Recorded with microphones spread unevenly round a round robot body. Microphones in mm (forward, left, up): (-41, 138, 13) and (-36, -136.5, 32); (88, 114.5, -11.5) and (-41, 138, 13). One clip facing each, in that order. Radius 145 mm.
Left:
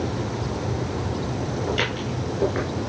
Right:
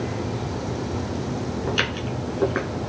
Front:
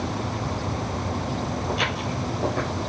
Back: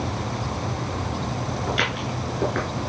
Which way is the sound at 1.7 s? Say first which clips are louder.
Left 1 dB, even; 145° right.